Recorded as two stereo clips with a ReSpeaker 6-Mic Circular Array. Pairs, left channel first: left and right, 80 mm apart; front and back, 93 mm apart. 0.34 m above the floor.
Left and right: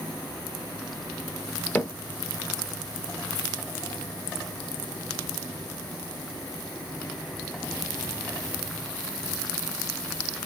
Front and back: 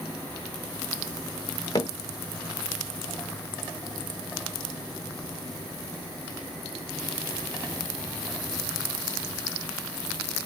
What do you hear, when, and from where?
1.8 s hammering: 30° left, 1.5 m